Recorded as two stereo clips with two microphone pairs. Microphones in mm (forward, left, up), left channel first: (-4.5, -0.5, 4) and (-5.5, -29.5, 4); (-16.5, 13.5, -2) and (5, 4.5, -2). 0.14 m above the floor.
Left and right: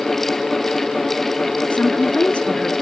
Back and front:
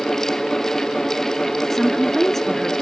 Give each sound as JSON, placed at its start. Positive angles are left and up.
{"t": 1.7, "sound": "a woman speaking", "azimuth_deg": 95, "distance_m": 1.5}